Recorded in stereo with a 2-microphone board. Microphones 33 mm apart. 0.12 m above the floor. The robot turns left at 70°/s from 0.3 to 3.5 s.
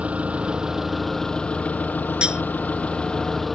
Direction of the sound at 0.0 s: 130° right.